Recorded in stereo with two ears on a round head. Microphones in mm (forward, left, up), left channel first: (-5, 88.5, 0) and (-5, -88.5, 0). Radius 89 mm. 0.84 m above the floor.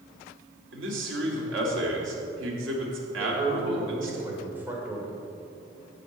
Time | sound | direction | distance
0.7 | a man speaking | 75° right (ahead or behind) | 3 m
3.2 | a man speaking | 10° right (ahead or behind) | 3 m